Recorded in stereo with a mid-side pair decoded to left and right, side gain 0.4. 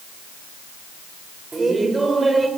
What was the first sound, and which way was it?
Laughter, 30° right.